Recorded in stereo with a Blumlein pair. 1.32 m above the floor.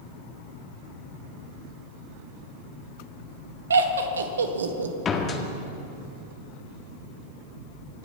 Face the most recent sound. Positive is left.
turn(degrees=20)